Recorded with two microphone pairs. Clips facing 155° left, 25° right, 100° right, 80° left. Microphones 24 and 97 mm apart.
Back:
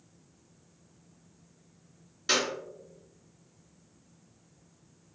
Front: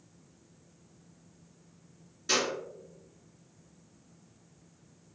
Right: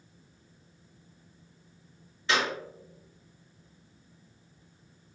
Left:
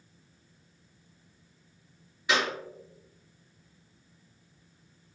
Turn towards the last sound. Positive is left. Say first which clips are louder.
# back 1 dB, even
turn(degrees=160)